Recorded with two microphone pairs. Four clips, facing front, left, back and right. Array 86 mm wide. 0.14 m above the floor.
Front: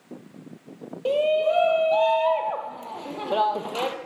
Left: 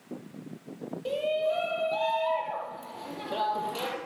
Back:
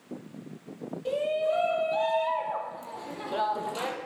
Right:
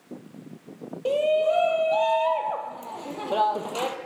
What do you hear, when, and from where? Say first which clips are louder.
1.1 s a shout: right 7 dB, front 6 dB; 35° right, 4 m